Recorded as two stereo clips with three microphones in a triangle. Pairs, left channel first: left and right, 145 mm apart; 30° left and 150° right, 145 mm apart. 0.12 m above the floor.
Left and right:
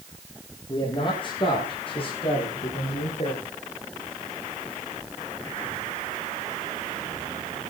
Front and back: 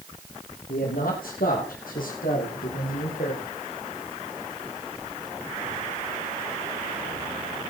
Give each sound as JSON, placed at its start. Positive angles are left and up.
{"t": 0.7, "sound": "a man speaking", "azimuth_deg": 35, "distance_m": 7.0}